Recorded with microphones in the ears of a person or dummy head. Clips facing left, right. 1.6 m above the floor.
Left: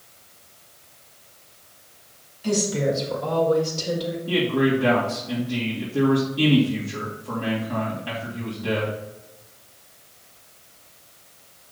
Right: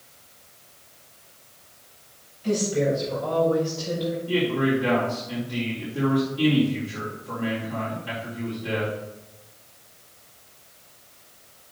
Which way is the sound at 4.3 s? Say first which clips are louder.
Left 3 dB; 75° left (ahead or behind).